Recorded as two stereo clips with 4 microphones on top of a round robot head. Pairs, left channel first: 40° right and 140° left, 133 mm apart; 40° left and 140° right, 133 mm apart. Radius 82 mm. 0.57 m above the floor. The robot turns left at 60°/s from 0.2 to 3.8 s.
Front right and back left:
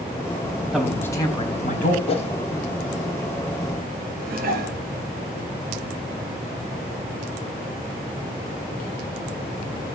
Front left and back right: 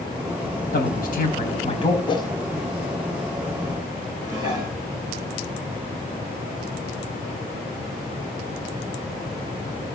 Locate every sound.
0.7 s a man speaking: 50° left, 4 m; by 2.0 s 20° right, 4 m
2.1 s a whoosh: 5° right, 1.9 m; by 2.3 s 20° right, 1.9 m
4.2 s dishes clattering: 160° left, 7 m